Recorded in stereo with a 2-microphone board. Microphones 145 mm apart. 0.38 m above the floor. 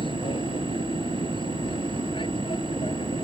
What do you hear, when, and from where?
0.0 s an aircraft: 35° left (ahead or behind)